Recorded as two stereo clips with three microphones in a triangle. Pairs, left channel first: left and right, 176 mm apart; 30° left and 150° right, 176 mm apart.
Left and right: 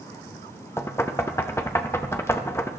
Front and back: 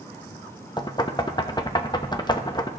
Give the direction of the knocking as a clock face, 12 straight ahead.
11 o'clock.